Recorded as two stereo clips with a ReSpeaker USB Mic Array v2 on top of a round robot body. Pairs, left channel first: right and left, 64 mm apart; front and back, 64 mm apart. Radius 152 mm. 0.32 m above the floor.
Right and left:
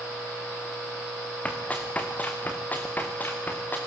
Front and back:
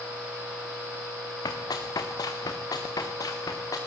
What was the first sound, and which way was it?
Running footsteps, 20° right.